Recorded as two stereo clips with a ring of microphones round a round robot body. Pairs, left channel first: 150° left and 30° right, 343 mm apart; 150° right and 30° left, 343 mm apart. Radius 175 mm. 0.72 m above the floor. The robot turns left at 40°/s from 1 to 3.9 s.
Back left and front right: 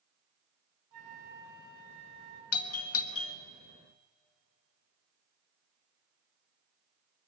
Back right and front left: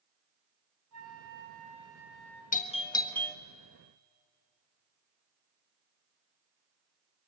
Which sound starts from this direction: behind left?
A doorbell, at 2.5 s.